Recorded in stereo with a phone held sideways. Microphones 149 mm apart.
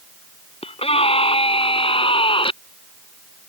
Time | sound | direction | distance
0.6 | a scream | 40° left (ahead or behind) | ?